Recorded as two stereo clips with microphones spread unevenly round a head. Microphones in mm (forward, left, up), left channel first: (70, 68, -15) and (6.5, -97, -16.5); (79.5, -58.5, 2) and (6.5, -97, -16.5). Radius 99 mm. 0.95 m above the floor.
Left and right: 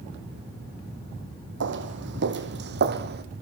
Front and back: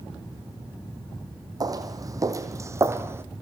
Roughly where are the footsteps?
Right.